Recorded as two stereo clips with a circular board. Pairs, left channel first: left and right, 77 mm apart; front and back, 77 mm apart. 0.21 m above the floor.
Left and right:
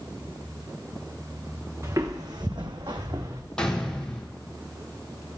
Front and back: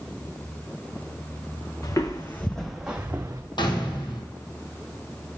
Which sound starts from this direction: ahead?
A gunshot, at 3.6 s.